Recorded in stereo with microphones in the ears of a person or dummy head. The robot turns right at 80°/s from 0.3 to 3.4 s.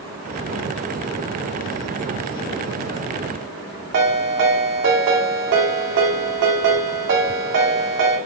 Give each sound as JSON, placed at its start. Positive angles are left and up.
{"t": 3.9, "sound": "a ringtone", "side_deg": -55, "distance_m": 1.7}